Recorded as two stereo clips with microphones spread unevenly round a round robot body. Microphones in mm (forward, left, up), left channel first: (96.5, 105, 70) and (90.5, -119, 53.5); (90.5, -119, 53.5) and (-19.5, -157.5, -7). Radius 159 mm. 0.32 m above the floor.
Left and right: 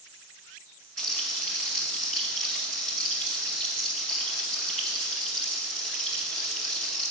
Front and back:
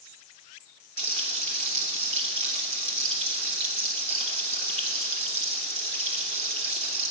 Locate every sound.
1.0 s frying: 175° left, 0.9 m